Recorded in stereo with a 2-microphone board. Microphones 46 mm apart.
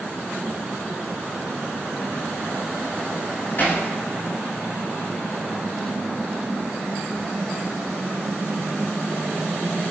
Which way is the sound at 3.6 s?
45° left (ahead or behind).